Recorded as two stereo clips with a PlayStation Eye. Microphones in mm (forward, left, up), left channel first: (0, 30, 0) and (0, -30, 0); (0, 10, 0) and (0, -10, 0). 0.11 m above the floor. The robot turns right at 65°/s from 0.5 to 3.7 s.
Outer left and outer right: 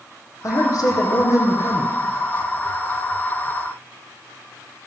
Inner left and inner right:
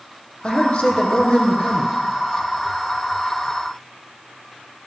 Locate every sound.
0.4 s a man speaking: 65° left, 4 m; by 2.0 s 165° left, 4 m